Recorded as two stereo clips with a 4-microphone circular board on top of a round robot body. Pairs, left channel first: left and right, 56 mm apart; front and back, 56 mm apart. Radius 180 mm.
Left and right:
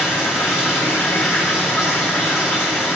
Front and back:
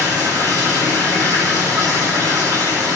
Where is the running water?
165° right, 2.5 m.